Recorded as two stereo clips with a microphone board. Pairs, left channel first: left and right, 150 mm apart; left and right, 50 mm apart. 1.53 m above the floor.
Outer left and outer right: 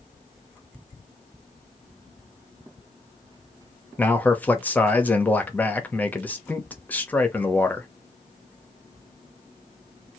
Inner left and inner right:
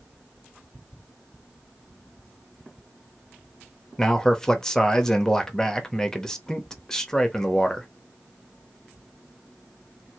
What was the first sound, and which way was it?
A man speaking, 10° left (ahead or behind).